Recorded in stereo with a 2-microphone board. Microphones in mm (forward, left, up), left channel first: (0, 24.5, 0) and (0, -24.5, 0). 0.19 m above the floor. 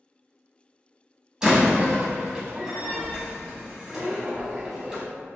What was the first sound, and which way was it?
A door slam, 15° right (ahead or behind).